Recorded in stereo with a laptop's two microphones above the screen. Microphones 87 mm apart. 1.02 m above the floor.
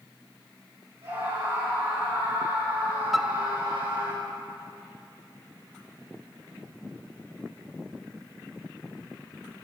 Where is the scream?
60° right (ahead or behind), 9.5 m.